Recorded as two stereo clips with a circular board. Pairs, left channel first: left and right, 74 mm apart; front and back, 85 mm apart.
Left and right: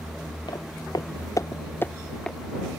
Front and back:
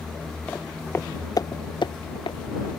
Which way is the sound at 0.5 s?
70° left.